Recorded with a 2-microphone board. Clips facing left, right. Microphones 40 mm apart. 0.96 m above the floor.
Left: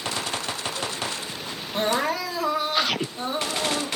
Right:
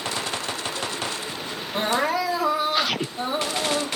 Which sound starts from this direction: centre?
Crying, at 1.7 s.